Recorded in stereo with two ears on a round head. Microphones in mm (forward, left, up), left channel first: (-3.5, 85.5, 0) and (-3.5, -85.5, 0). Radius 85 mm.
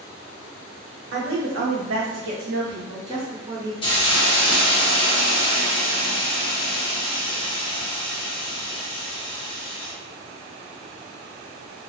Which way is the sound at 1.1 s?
75° right (ahead or behind).